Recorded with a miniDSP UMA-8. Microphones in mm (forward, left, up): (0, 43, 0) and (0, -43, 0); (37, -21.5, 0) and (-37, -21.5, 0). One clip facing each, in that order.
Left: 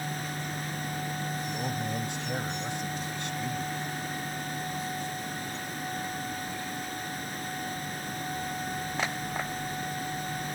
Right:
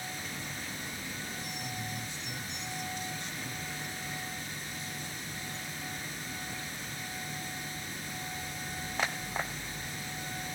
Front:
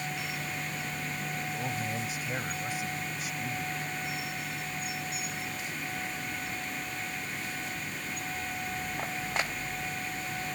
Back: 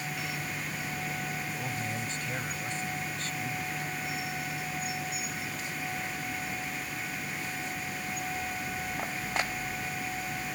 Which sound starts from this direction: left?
A man speaking, at 1.5 s.